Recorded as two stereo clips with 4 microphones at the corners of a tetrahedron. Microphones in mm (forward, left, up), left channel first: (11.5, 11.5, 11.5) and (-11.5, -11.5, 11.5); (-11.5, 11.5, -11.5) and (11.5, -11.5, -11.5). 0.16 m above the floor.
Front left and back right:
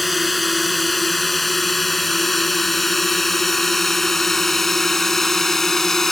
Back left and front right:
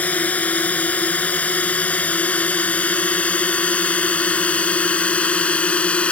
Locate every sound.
0.0 s a drone: 135° left; by 6.1 s 120° left